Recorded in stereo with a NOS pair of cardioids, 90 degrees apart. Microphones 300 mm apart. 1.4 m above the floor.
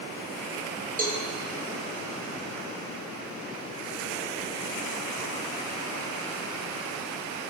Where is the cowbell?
25° right, 1.3 m.